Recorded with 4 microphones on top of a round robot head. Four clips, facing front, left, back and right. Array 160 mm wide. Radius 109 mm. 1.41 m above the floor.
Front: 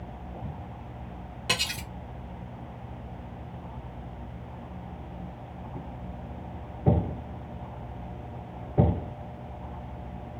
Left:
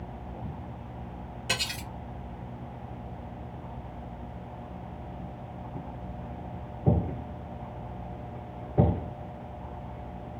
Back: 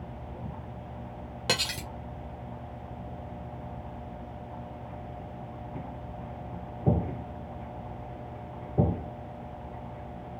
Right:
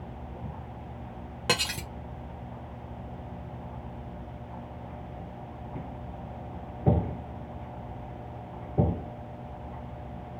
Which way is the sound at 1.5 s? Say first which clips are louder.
Right 6 dB, back 1 dB; 115° right.